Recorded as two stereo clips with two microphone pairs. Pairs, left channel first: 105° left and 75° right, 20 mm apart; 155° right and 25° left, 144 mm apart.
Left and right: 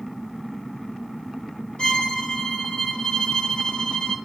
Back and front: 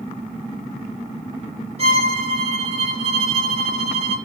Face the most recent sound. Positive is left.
turn(degrees=70)